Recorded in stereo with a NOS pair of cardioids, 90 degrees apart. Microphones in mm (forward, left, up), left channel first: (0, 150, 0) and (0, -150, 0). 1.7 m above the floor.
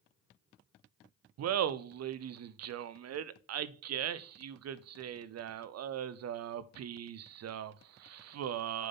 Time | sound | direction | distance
1.4 | laughter | 55° right | 0.7 m